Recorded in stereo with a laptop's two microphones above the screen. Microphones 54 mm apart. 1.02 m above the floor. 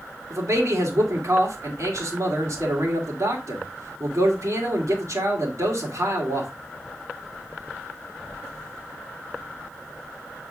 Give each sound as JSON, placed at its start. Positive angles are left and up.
{"t": 0.3, "sound": "a man speaking", "side_deg": -70, "distance_m": 2.5}